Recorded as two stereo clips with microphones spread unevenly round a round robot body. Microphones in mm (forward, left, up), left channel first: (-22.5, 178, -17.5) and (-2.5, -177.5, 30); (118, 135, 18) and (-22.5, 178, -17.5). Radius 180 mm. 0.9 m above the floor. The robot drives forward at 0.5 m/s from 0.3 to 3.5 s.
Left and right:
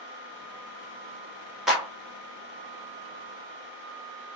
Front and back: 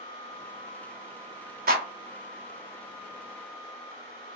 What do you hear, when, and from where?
1.7 s a clap: straight behind, 1.2 m